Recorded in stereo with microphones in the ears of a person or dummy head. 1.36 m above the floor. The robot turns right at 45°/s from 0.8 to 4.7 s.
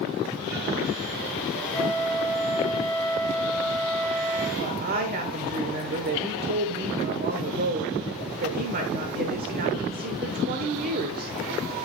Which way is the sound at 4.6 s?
40° right (ahead or behind).